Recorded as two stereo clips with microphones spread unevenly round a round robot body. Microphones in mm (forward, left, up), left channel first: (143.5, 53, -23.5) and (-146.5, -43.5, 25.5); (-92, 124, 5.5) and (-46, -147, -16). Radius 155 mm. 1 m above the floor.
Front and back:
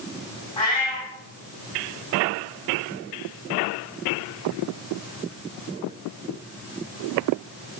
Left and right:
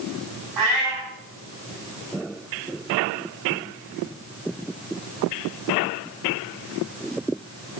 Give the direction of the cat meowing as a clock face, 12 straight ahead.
2 o'clock.